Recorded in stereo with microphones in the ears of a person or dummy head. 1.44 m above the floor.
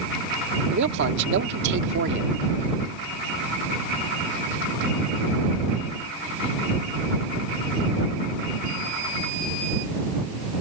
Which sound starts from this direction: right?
A man speaking, at 0.7 s.